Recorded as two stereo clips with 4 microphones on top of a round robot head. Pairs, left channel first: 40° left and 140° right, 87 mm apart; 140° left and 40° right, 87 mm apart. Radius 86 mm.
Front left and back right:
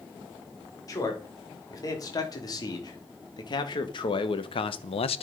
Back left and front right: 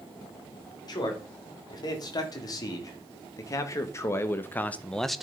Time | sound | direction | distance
0.9 | a man speaking | 95° left | 3.5 m